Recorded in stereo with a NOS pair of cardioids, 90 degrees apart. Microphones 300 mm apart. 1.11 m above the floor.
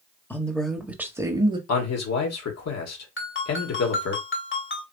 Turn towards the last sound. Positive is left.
turn(degrees=45)